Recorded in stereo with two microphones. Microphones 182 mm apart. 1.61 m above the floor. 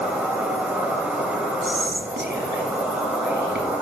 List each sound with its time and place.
0.0 s an insect: 10° right (ahead or behind), 1.8 m
1.6 s whispering: 75° right (ahead or behind), 2.5 m